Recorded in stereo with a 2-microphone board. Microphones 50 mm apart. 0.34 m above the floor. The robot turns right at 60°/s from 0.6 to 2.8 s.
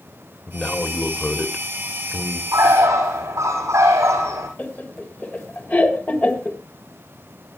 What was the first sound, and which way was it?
A man speaking, 20° left (ahead or behind).